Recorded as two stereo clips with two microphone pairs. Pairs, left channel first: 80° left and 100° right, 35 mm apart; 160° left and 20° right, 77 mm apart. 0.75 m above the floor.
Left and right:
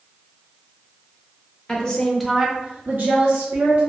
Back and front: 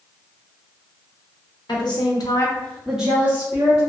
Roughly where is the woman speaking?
Behind left.